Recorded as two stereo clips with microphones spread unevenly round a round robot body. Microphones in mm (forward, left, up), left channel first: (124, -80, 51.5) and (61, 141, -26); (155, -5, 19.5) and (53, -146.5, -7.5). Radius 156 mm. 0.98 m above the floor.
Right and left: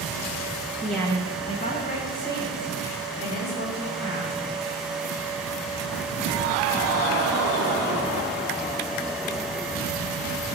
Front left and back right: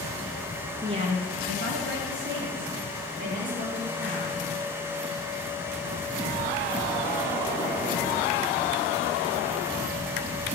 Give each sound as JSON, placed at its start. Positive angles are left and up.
{"t": 0.8, "sound": "a woman speaking", "azimuth_deg": 170, "distance_m": 0.8}